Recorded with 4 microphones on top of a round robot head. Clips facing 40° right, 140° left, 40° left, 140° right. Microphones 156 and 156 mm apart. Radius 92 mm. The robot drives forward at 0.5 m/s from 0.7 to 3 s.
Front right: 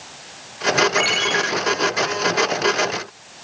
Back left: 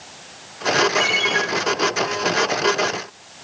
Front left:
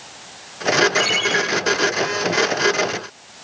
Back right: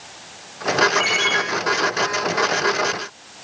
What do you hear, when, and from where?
1.0 s a ringtone: 10° right, 4.5 m